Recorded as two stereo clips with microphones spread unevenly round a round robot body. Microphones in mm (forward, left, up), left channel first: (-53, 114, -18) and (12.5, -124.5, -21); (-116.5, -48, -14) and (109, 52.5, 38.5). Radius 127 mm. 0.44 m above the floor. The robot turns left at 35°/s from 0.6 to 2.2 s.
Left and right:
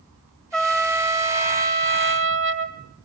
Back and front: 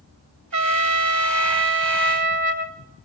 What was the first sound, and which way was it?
A trumpet, 15° left.